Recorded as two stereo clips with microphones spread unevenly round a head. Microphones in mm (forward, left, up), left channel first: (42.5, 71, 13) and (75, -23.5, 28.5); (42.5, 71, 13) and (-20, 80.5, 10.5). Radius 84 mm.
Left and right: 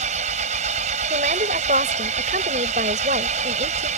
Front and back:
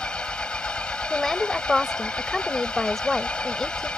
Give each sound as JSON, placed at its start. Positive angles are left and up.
{"t": 0.0, "sound": "an engine running", "azimuth_deg": -95}
{"t": 1.1, "sound": "a woman speaking", "azimuth_deg": -95}